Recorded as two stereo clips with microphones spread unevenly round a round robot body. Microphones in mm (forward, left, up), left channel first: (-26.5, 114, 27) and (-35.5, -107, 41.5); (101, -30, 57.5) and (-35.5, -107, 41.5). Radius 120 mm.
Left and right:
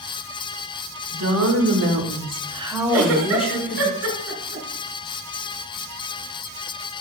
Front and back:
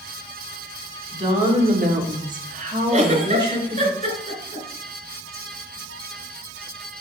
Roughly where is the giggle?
Right.